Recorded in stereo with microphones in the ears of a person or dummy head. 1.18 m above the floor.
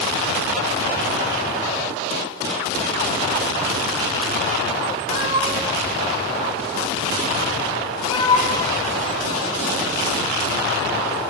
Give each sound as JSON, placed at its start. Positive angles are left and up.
{"t": 5.1, "sound": "a cat meowing", "side_deg": -35, "distance_m": 1.2}